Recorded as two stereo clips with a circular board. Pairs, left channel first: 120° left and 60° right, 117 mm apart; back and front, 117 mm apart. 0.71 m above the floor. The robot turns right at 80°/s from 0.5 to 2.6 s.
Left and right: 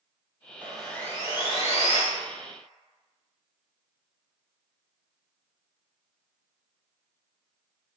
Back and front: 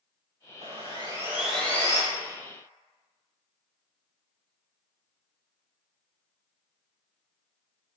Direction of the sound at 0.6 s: 15° left.